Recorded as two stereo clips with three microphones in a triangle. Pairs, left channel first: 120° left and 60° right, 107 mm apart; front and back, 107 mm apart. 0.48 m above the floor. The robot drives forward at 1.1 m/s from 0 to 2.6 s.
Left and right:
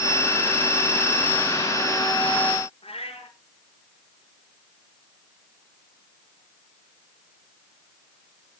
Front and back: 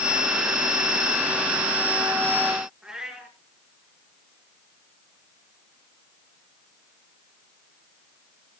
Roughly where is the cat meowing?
Left.